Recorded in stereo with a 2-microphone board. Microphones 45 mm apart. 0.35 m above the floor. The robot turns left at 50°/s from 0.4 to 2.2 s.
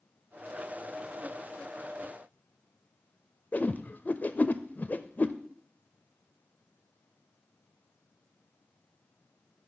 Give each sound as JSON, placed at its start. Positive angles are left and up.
{"t": 3.5, "sound": "a whoosh", "side_deg": 40, "distance_m": 0.5}